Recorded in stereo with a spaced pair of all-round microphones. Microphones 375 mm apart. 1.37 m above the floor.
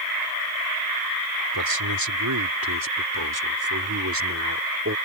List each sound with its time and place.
1.5 s a man speaking: 70° right (ahead or behind); by 5.0 s 40° right (ahead or behind)